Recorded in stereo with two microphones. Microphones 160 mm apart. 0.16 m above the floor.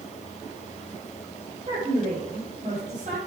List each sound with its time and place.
1.7 s a woman speaking: 35° right (ahead or behind), 6 m; by 3.2 s 50° right (ahead or behind), 5 m